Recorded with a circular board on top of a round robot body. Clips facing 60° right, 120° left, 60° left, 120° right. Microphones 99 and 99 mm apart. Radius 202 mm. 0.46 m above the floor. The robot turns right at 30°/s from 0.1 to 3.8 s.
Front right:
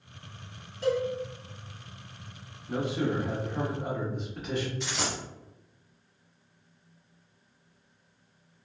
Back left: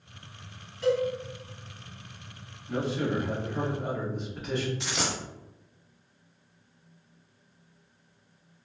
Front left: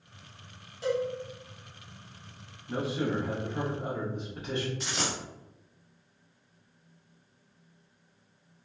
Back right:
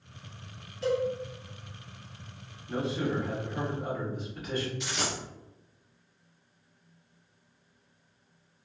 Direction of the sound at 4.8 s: 110° left.